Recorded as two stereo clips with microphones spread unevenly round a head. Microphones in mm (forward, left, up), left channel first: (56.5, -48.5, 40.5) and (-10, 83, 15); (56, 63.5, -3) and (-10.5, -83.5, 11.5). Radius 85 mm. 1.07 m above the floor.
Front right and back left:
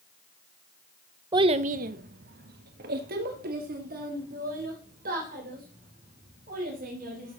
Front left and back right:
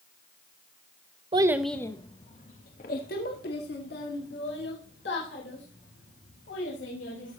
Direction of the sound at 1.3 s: Straight behind.